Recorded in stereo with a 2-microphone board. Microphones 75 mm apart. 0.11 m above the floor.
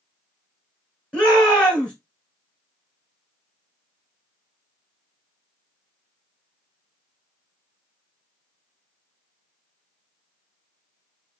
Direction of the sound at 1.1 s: 10° left (ahead or behind).